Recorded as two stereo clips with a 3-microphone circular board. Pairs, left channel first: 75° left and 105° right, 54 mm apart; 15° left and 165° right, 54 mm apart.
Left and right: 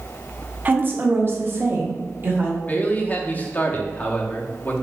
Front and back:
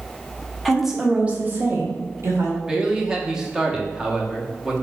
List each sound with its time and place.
0.7 s a woman speaking: 70° right, 0.8 m; by 2.6 s 145° right, 1.3 m
2.7 s a man speaking: 120° left, 0.7 m